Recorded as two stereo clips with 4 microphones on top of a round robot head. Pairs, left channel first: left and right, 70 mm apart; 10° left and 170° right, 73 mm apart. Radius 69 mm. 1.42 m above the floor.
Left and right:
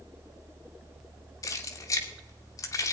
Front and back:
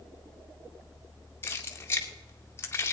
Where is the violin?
I don't hear a violin.